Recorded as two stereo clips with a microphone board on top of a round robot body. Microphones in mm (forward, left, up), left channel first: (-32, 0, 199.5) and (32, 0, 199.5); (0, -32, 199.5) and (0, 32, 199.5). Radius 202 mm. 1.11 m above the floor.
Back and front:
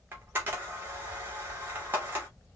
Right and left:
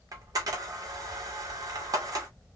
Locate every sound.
0.1 s a camera shutter: 60° left, 1.1 m